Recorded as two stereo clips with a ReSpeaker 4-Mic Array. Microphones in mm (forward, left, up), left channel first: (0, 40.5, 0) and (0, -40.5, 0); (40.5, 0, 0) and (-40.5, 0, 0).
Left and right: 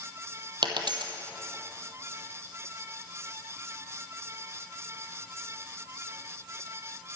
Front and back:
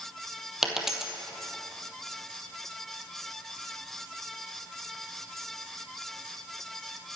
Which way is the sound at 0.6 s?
95° right.